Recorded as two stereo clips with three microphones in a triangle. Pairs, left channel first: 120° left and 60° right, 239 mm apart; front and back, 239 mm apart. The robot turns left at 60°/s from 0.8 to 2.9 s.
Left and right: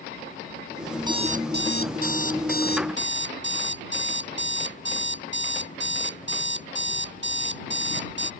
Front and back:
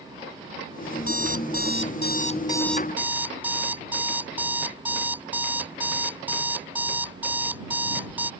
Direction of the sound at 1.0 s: 20° left.